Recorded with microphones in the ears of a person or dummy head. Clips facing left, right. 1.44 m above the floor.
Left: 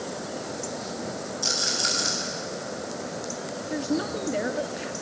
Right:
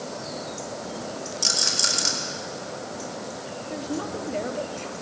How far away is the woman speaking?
About 0.8 m.